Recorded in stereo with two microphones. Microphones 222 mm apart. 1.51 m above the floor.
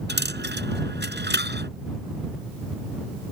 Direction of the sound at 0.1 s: 50° right (ahead or behind).